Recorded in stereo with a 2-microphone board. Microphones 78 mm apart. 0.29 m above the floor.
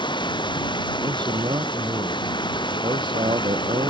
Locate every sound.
0.0 s running water: 90° left
1.0 s a man speaking: 80° right